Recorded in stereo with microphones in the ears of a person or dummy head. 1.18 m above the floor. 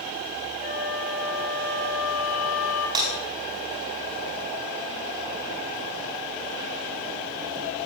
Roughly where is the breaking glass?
Right.